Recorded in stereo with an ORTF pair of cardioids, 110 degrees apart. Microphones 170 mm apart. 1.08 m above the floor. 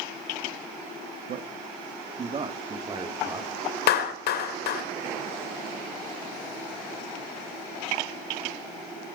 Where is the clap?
70° left, 3 m.